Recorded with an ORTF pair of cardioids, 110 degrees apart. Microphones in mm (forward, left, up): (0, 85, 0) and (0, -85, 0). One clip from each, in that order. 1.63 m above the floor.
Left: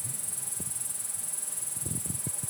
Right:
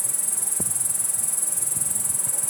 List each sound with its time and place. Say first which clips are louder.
0.0 s an insect: right 10 dB; 60° right